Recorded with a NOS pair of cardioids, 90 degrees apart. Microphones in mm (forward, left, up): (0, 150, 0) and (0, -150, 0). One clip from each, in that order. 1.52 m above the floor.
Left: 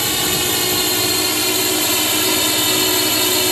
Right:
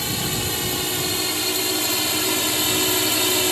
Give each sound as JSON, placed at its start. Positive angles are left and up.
{"t": 0.0, "sound": "a drone", "azimuth_deg": 55}